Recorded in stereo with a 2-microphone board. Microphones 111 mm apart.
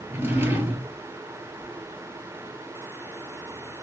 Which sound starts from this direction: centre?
A drawer, at 0.1 s.